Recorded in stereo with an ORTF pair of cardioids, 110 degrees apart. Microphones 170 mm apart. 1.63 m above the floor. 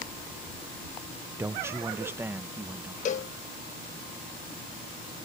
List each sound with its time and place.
1.4 s a man speaking: 15° right
3.0 s a cowbell: 45° left